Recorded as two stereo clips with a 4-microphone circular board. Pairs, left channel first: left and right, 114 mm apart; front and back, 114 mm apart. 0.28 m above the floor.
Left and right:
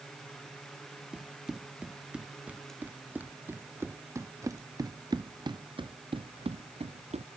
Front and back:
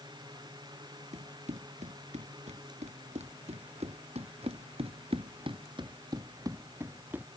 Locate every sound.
1.1 s running footsteps: 175° right; by 7.3 s 105° right